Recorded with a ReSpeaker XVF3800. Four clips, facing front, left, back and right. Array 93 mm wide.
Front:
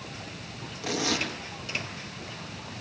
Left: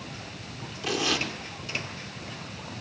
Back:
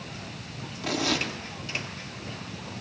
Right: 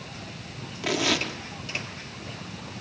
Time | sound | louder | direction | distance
0.8 | tearing paper | right 2 dB, back 1 dB | 85° right | 5 m